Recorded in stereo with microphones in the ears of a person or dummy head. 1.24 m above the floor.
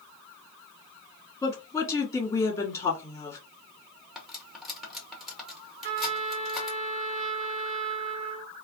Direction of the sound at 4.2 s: Centre (ahead or behind).